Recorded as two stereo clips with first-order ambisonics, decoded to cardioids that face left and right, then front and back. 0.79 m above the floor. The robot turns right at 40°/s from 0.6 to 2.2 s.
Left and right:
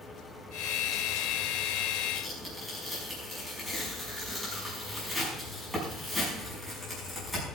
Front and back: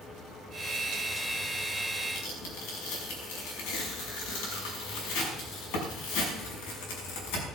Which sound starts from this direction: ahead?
Tearing paper, at 2.1 s.